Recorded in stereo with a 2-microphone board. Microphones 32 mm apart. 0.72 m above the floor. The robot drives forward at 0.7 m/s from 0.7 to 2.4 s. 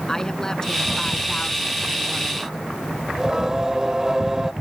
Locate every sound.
0.1 s a woman speaking: 20° left (ahead or behind); by 2.5 s 25° left (ahead or behind)
3.1 s singing: 20° right (ahead or behind)